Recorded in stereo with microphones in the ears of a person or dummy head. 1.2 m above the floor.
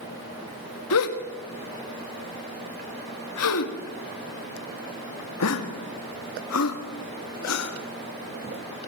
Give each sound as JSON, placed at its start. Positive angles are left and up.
{"t": 0.9, "sound": "a gasp", "side_deg": 80, "distance_m": 2.0}